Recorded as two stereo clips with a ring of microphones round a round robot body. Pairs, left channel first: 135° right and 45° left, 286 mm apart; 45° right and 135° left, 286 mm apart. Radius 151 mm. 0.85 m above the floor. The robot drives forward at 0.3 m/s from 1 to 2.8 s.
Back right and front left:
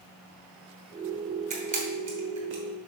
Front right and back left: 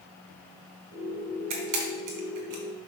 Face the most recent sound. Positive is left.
turn(degrees=120)